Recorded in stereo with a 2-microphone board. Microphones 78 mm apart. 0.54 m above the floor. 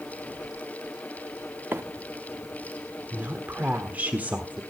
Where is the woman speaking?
20° right (ahead or behind), 1.2 m.